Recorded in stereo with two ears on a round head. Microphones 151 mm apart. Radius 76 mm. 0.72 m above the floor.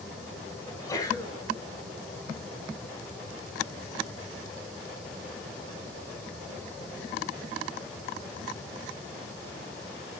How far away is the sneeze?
About 7 m.